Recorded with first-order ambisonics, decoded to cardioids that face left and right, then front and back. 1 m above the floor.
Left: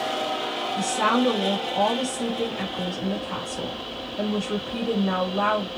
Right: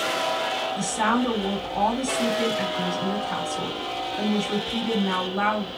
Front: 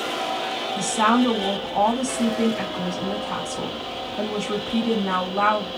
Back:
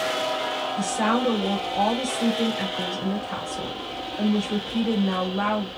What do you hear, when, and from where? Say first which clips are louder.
0.8 s a woman speaking: left 4 dB, front 6 dB; 5° right, 1.7 m